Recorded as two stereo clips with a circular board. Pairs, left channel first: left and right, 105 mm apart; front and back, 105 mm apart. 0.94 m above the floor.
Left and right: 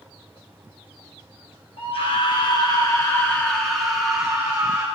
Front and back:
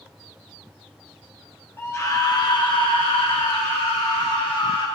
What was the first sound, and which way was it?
A scream, 70° left.